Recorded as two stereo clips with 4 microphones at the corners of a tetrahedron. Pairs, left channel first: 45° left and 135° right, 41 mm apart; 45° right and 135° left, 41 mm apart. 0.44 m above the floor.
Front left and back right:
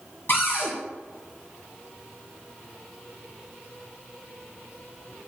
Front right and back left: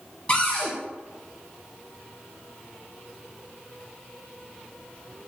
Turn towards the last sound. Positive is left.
turn(degrees=20)